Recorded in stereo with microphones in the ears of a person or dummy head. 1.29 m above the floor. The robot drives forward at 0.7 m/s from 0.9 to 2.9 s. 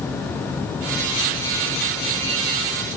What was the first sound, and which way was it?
Only background noise.